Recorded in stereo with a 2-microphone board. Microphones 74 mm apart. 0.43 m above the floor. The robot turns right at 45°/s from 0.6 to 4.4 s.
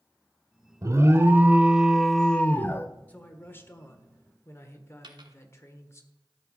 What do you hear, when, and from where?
0.8 s an alarm: 55° right, 0.8 m; by 2.9 s 40° left, 0.8 m
3.1 s a man speaking: 35° left, 1.3 m; by 6.0 s 95° left, 1.3 m
5.0 s a dropped coin: 80° right, 1.1 m